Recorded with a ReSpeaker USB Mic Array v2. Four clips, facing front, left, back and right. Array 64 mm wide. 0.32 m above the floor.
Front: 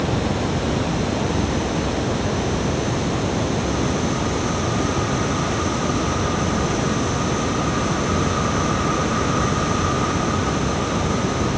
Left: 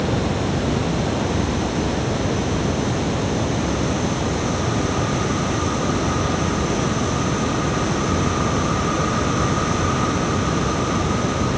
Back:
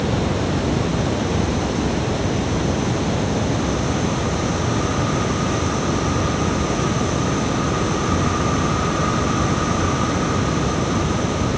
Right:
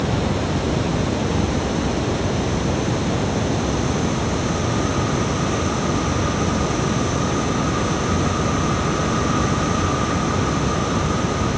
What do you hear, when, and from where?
Only background noise.